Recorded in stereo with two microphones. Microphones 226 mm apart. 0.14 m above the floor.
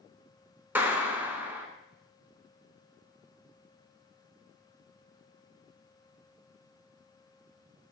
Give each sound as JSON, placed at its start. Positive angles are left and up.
{"t": 0.8, "sound": "a clap", "side_deg": -10, "distance_m": 0.9}